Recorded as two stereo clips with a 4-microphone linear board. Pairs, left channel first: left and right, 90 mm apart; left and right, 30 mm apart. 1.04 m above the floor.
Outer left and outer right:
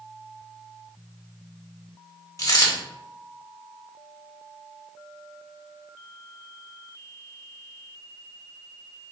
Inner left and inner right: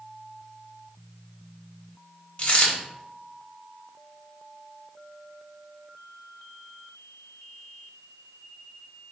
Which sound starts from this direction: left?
A dropped coin, at 2.4 s.